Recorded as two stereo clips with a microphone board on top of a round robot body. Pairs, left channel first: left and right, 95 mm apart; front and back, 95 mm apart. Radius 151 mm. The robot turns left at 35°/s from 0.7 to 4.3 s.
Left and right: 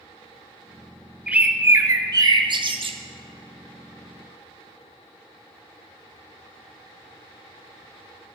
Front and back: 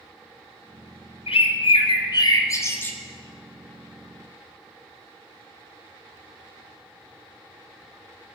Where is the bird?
10° right, 1.1 m; by 3.0 s 70° right, 1.1 m.